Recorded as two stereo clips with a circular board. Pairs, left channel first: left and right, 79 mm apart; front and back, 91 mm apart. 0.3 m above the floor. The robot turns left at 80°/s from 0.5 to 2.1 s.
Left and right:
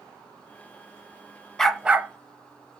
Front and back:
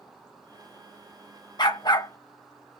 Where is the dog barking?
10° left, 0.6 m; by 2.8 s 30° right, 0.6 m.